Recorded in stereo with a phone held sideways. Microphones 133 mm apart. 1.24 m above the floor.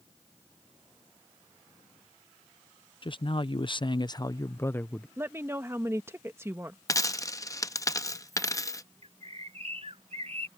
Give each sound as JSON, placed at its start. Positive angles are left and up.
{"t": 3.0, "sound": "a man speaking", "side_deg": 40}
{"t": 5.2, "sound": "a woman speaking", "side_deg": -20}
{"t": 6.9, "sound": "a dropped coin", "side_deg": 25}
{"t": 9.0, "sound": "a bird", "side_deg": -55}